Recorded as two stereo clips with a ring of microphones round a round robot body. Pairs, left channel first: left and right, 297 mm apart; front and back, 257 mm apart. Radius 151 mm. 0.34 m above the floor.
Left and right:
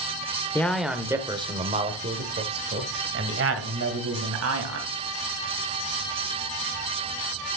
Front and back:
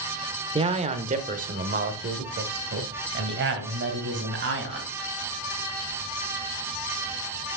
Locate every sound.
0.6 s a man speaking: 160° left, 1.1 m; by 4.9 s 130° right, 2.5 m